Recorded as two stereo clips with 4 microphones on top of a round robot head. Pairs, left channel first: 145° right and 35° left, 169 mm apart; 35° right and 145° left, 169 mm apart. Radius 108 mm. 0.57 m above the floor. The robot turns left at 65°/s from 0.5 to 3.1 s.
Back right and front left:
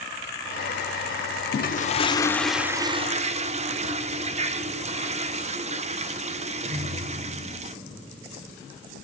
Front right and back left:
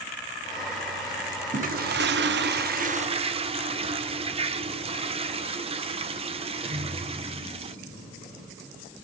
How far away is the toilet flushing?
About 0.8 m.